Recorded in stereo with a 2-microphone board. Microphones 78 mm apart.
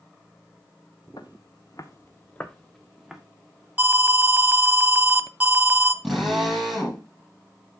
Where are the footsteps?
80° left, 1.5 m; by 3.2 s 10° right (ahead or behind), 2 m.